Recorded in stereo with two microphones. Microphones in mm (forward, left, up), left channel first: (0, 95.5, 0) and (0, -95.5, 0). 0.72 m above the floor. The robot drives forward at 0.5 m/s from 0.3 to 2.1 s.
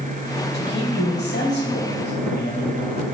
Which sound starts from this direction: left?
A man speaking, at 0.5 s.